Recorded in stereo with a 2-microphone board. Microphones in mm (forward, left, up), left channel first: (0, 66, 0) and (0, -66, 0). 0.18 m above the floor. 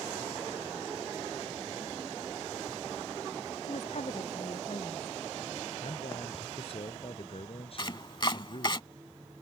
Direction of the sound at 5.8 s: 50° left (ahead or behind).